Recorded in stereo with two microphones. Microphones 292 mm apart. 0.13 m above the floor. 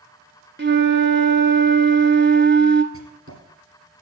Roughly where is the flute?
Right.